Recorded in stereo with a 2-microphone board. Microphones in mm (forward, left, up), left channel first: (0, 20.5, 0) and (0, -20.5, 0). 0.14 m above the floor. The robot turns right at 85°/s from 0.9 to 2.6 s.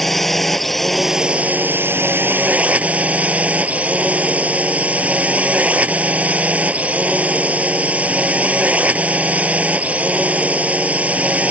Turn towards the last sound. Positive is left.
turn(degrees=-40)